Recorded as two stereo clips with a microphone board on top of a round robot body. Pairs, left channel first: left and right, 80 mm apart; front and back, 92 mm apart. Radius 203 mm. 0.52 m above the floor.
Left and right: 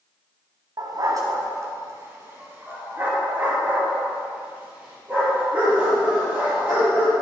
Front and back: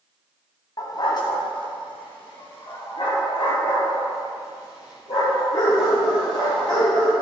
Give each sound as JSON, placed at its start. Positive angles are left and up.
{"t": 0.8, "sound": "a dog barking", "azimuth_deg": -50, "distance_m": 1.9}